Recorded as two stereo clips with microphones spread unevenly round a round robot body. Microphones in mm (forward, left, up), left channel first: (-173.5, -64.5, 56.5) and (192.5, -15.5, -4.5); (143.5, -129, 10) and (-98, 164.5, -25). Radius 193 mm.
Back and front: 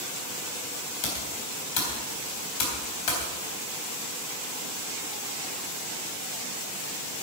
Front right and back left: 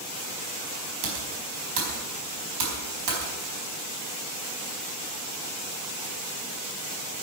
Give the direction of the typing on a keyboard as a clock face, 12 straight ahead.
6 o'clock.